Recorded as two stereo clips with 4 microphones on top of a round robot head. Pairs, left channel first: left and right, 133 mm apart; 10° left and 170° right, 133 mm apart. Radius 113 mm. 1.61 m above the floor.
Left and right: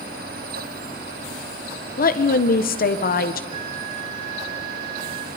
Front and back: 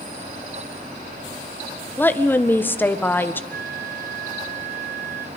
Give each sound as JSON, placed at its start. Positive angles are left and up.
{"t": 2.0, "sound": "a woman speaking", "azimuth_deg": 85, "distance_m": 1.6}
{"t": 3.5, "sound": "a flute", "azimuth_deg": -155, "distance_m": 2.0}